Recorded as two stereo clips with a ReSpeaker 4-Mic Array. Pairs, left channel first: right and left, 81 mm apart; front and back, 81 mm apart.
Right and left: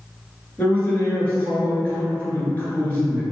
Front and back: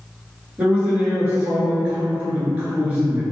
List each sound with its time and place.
0.6 s a man speaking: 130° right, 1.4 m